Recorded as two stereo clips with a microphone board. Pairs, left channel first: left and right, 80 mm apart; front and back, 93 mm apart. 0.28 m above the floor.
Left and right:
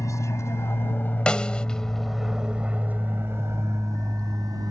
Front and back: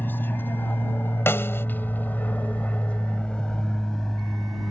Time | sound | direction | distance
0.0 | an aircraft | 60° left | ?
1.3 | a snare drum | 25° left | ?